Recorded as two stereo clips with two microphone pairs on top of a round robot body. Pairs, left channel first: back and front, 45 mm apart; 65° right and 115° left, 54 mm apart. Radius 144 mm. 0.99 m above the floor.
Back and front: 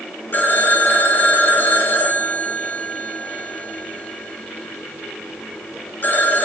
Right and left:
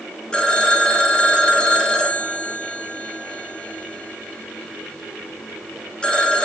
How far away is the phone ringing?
About 2.5 m.